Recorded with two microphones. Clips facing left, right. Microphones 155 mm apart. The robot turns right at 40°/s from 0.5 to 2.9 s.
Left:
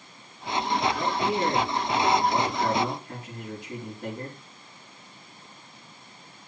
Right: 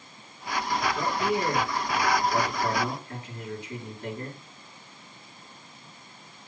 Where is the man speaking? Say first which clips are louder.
Left 1 dB; 15° left, 4.5 m; by 4.3 s 95° left, 4.5 m.